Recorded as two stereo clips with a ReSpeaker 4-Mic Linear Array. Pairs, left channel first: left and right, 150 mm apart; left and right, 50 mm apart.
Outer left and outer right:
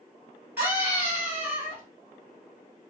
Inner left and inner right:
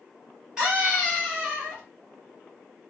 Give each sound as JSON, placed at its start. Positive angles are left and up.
{"t": 0.6, "sound": "a scream", "side_deg": -15, "distance_m": 2.5}